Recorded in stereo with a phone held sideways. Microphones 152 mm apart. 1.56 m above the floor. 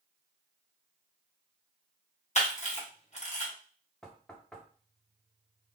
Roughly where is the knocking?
Centre.